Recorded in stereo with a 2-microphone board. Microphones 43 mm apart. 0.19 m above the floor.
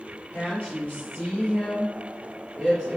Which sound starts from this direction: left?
A woman speaking, at 0.3 s.